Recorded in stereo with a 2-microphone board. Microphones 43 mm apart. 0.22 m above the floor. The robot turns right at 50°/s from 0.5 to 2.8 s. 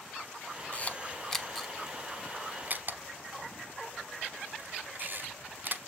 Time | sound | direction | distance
0.7 | a camera shutter | 35° left (ahead or behind) | 0.9 m